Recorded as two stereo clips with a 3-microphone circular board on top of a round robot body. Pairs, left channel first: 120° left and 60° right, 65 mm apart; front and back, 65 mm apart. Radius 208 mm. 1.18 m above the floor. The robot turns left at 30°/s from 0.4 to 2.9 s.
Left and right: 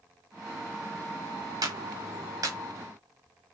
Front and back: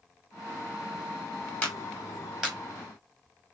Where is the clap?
75° right, 3.5 m; by 2.6 s 105° right, 3.5 m.